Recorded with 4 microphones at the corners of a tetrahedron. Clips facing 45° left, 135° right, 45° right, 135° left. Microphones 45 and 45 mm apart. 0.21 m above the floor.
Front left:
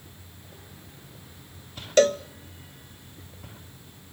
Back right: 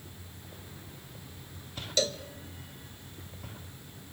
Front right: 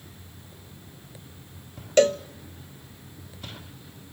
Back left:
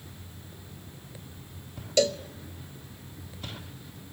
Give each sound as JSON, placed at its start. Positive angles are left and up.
{"t": 2.0, "sound": "a cowbell", "azimuth_deg": 5, "distance_m": 0.5}